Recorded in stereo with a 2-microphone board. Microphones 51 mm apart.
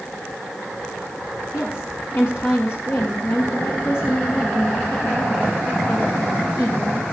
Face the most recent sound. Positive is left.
turn(degrees=55)  # may be behind; listen again after turning